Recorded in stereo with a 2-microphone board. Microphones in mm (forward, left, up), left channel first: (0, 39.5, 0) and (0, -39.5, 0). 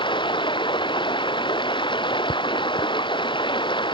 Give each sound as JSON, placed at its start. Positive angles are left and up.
{"t": 0.0, "sound": "running water", "side_deg": 80}